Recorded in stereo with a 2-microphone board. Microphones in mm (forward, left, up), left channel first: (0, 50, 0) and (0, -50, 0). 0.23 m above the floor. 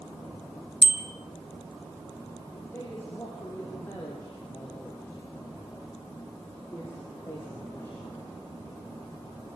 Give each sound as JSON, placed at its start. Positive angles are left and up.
{"t": 0.8, "sound": "a bicycle bell", "side_deg": 50, "distance_m": 2.5}
{"t": 2.7, "sound": "a man speaking", "side_deg": 20, "distance_m": 7.5}